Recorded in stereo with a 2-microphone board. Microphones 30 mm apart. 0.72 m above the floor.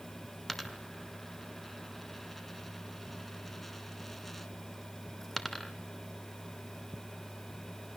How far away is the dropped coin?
About 1.2 m.